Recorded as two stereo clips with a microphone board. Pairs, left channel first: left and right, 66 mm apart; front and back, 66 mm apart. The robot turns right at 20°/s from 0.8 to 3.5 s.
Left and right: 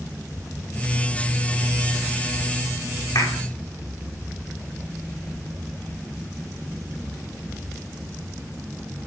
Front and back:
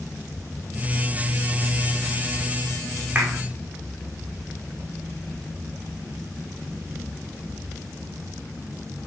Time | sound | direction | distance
3.1 | a clap | 105° left | 6.5 m